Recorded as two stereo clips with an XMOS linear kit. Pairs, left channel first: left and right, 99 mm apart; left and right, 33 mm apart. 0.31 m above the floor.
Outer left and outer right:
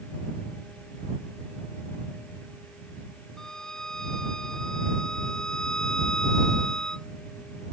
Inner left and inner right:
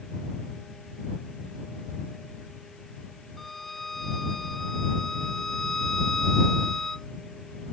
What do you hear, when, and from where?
3.4 s a violin: 5° left (ahead or behind)